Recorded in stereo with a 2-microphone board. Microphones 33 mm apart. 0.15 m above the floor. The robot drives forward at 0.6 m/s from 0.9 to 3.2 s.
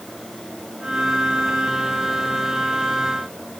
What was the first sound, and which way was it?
Only background noise.